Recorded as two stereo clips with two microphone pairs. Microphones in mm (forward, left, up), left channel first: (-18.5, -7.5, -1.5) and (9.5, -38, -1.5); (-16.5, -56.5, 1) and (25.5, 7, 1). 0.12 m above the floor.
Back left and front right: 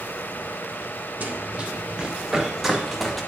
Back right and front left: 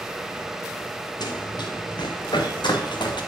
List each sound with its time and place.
1.2 s running footsteps: 100° right, 1.5 m; by 3.2 s 135° right, 2.5 m